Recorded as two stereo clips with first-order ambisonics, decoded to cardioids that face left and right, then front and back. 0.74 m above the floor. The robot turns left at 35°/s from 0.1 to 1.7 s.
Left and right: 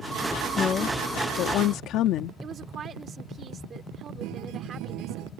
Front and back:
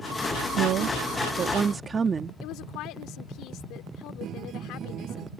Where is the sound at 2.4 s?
30° right.